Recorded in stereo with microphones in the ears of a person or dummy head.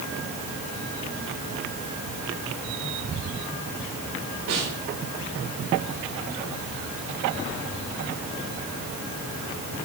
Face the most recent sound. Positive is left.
turn(degrees=-85)